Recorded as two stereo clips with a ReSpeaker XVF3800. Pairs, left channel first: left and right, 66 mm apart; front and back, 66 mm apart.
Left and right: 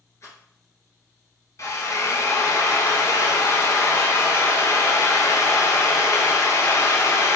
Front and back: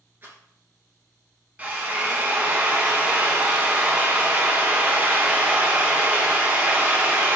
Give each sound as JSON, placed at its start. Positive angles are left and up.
{"t": 0.2, "sound": "a rattle", "azimuth_deg": 125, "distance_m": 1.1}
{"t": 1.6, "sound": "a drill", "azimuth_deg": 115, "distance_m": 0.7}